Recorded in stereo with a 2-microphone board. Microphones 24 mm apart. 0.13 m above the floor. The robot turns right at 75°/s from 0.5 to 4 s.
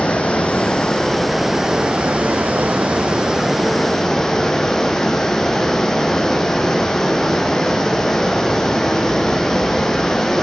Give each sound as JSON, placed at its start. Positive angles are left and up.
{"t": 0.0, "sound": "running water", "azimuth_deg": 120, "distance_m": 1.2}